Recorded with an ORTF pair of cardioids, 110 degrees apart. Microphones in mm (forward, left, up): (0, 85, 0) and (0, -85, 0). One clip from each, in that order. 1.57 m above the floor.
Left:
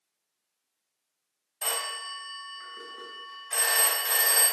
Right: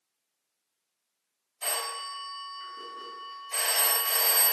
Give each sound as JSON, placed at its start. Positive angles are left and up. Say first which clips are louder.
{"t": 1.6, "sound": "a phone ringing", "louder": "left 1 dB", "azimuth_deg": 55, "distance_m": 1.4}